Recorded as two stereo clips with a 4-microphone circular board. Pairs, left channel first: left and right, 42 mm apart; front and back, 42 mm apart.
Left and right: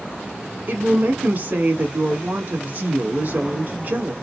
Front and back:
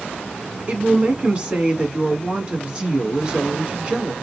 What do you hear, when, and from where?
0.7 s a woman speaking: 115° right, 1.7 m